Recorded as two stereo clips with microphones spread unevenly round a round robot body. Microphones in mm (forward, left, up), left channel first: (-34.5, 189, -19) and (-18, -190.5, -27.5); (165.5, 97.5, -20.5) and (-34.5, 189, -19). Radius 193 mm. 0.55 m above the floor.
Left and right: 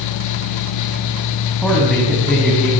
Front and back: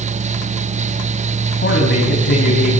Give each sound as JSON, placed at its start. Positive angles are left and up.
{"t": 1.6, "sound": "a man speaking", "azimuth_deg": 5, "distance_m": 5.0}